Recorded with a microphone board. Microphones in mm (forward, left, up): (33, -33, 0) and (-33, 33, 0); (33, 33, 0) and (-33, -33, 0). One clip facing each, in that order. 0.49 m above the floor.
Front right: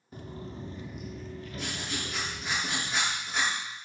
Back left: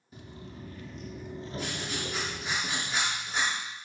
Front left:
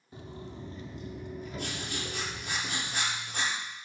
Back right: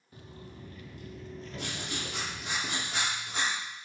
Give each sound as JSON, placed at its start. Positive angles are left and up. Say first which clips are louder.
{"t": 0.1, "sound": "footsteps", "louder": "front right 4 dB, front left 5 dB", "azimuth_deg": -15, "distance_m": 0.8}
{"t": 1.6, "sound": "writing", "louder": "back left 1 dB, back right 1 dB", "azimuth_deg": -140, "distance_m": 5.0}